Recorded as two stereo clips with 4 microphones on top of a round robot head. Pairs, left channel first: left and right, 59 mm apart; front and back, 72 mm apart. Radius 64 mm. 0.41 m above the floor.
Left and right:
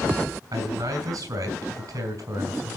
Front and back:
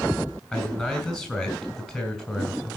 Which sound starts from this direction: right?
A man speaking, at 0.5 s.